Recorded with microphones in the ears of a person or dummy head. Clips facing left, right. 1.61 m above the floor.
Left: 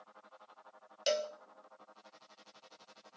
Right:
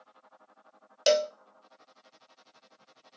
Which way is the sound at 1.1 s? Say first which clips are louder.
Right 9 dB; 70° right (ahead or behind).